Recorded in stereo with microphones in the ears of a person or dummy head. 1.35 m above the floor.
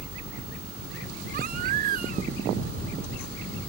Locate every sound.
1.3 s a baby crying: 50° right (ahead or behind)